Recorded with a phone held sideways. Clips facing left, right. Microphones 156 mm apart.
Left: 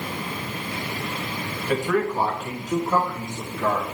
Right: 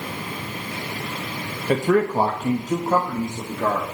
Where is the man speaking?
40° right (ahead or behind), 0.7 m.